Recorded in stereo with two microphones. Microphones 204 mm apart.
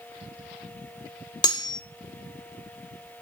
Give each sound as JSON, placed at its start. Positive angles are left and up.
{"t": 1.4, "sound": "cutlery clinking", "side_deg": 20, "distance_m": 0.8}